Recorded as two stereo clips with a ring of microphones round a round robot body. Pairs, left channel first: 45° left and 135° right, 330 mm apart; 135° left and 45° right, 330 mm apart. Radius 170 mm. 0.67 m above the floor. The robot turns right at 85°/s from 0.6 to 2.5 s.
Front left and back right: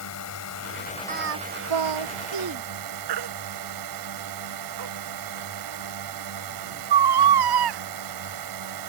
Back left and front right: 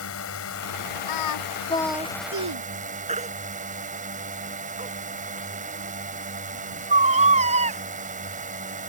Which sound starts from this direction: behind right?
A baby crying, at 3.1 s.